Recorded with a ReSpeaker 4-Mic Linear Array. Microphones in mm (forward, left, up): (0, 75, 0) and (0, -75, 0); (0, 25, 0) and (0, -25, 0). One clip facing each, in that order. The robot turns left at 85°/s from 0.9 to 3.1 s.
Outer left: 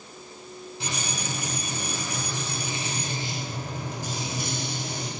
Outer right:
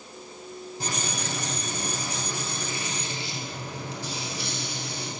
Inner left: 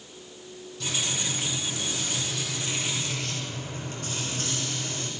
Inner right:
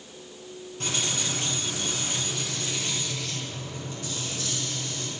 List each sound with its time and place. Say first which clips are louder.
0.8 s frying: outer right 1 dB, inner right 1 dB; 45° right, 5.5 m; by 5.1 s 130° left, 5.5 m